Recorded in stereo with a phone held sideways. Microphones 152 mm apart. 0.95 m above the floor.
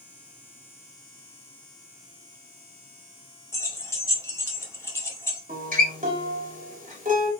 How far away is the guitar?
About 2.5 m.